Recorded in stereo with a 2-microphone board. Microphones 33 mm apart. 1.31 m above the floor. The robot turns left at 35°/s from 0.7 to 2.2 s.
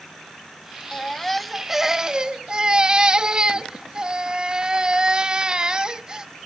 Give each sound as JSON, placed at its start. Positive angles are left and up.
{"t": 0.9, "sound": "a baby crying", "azimuth_deg": 15}